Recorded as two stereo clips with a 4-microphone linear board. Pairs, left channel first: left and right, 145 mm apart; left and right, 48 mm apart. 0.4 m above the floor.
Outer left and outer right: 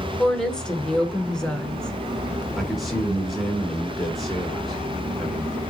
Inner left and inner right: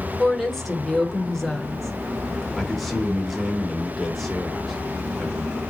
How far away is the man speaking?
About 1.1 m.